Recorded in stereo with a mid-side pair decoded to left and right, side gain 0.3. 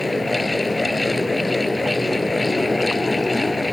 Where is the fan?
30° left.